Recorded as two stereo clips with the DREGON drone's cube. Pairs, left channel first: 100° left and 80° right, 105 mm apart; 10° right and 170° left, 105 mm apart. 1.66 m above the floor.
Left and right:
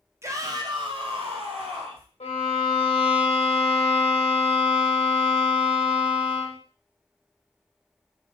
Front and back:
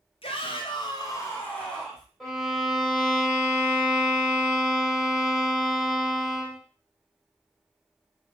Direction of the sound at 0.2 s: 15° right.